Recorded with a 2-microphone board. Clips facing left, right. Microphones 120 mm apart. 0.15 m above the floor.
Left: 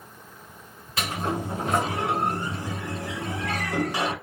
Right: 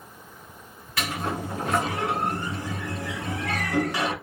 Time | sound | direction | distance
1.0 | a sliding door | 20° left (ahead or behind) | 1.2 m